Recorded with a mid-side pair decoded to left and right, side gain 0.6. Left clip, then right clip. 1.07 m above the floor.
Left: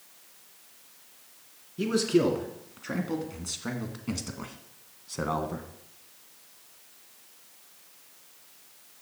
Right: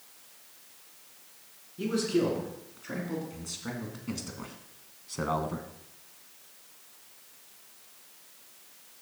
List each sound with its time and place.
1.8 s a man speaking: 40° left, 3 m; by 5.7 s 5° right, 0.9 m